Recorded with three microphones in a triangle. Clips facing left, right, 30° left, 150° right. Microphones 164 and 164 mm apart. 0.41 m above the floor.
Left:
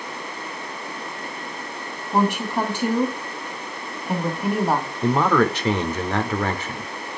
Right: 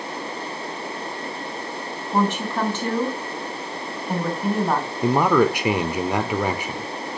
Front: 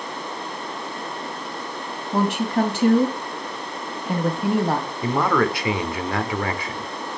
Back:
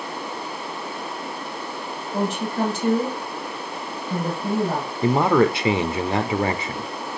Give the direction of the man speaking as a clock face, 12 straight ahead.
5 o'clock.